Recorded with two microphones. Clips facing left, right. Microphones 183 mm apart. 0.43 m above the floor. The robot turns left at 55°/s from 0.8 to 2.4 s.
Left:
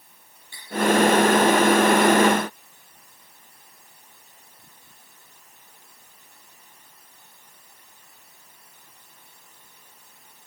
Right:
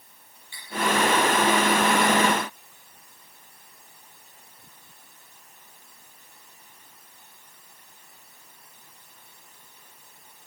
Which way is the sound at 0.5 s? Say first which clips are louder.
Even; 40° left (ahead or behind).